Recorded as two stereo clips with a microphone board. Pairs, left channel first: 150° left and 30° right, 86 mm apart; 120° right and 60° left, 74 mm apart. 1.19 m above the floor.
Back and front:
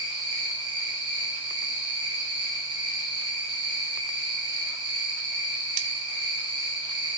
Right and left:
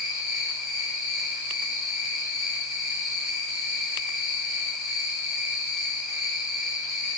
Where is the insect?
25° right, 0.8 m.